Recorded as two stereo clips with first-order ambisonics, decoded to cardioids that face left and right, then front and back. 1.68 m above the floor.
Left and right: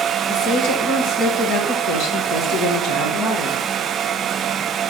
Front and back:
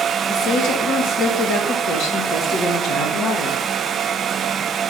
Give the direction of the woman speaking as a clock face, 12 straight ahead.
11 o'clock.